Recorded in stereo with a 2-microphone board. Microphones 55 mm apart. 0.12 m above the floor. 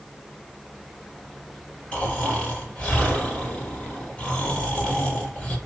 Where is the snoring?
25° left (ahead or behind), 2.5 m.